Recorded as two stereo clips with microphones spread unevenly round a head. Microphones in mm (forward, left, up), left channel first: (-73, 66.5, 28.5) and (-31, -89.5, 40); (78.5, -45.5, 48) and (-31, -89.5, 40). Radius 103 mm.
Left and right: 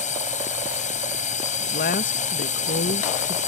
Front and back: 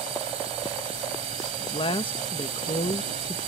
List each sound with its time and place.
0.0 s a drone: 150° left
1.6 s a woman speaking: 75° left